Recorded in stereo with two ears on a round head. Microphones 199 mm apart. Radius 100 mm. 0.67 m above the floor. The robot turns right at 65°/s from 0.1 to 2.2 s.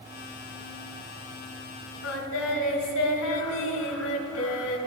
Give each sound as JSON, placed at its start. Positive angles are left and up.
{"t": 2.0, "sound": "singing", "side_deg": 70, "distance_m": 1.5}